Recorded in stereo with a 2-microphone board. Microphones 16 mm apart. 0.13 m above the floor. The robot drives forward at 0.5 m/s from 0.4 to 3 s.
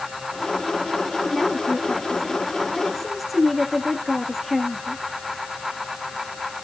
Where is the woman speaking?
5° right (ahead or behind), 9.5 m; by 5.0 s centre (ahead or behind), 10.5 m.